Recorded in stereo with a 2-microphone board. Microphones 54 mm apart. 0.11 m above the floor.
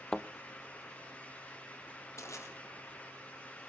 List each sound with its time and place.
0.1 s a thud: 15° left (ahead or behind), 0.7 m
2.2 s crushing: 60° left (ahead or behind), 4 m